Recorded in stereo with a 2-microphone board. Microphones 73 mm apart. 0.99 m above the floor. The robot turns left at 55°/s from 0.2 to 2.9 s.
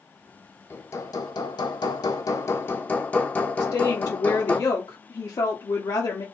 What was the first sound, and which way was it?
Hammering, 145° left.